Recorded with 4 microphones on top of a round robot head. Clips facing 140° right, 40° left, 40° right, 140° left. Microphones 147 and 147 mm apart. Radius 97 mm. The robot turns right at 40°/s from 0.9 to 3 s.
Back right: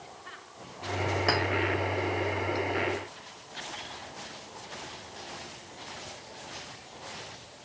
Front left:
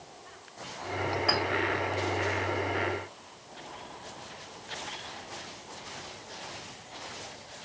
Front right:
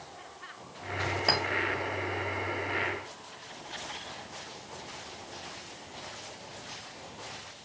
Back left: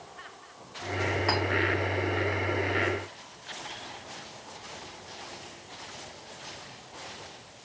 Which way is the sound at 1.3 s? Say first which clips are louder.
Back right 2 dB, back left 1 dB; 95° right.